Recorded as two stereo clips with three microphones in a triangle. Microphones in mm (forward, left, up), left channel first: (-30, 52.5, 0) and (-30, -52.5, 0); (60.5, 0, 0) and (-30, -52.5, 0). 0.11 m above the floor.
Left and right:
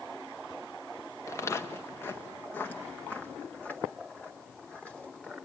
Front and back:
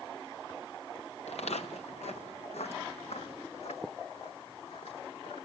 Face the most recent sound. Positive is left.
turn(degrees=10)